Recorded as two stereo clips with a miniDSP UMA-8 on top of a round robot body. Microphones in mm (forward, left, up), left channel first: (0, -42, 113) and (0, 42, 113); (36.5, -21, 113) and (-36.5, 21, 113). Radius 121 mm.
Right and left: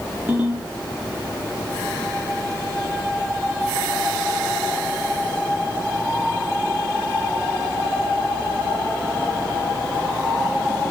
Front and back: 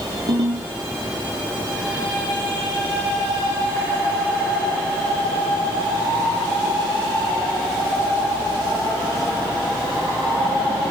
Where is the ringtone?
165° left, 7 m.